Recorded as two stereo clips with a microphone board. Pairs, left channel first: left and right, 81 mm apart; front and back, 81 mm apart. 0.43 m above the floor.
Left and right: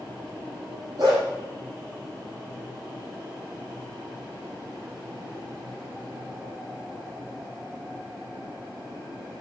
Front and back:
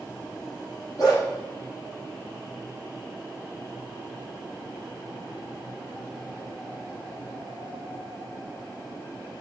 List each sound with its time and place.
1.0 s a dog barking: 45° right, 4.5 m